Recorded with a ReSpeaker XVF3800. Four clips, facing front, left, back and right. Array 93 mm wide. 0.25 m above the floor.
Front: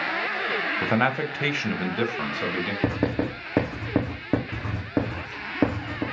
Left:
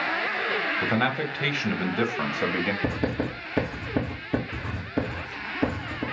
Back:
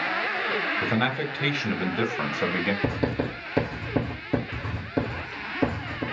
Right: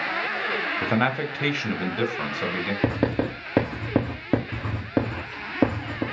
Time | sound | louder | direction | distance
0.8 | a man speaking | right 4 dB, front 2 dB | 25° right | 1.0 m
2.8 | writing | right 3 dB, front 2 dB | 60° right | 3 m